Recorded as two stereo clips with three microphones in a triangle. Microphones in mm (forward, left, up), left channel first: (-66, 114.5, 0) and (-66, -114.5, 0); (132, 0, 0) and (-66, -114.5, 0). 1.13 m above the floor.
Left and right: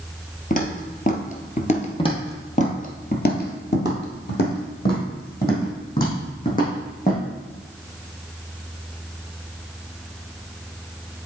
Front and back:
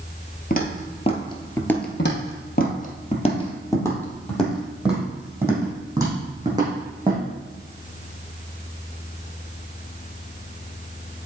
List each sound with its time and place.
0.5 s footsteps: 55° left, 1.6 m; by 1.9 s 115° left, 1.3 m
2.0 s footsteps: 30° left, 1.8 m; by 7.2 s 140° left, 4.5 m